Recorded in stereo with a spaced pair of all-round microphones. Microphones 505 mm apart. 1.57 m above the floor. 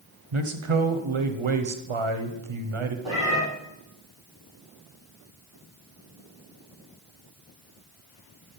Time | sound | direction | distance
0.3 | a man speaking | 70° right (ahead or behind) | 0.9 m
3.0 | a cat meowing | 70° left (ahead or behind) | 5 m